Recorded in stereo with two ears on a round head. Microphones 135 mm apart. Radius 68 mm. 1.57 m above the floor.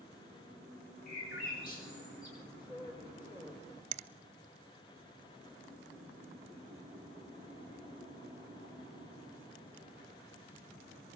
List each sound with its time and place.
1.1 s a bird: 65° left (ahead or behind), 10 m
2.4 s a woman speaking: 25° left (ahead or behind), 4.5 m
3.9 s a finger snap: 50° right (ahead or behind), 0.8 m